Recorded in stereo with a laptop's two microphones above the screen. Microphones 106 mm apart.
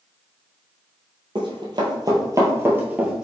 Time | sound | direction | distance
1.4 | running footsteps | 50° right (ahead or behind) | 1.6 m